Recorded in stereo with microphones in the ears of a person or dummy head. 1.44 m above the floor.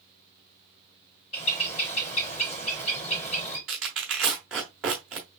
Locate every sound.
1.3 s a bird: 35° left (ahead or behind), 2.5 m
3.7 s tearing paper: 5° right (ahead or behind), 1.2 m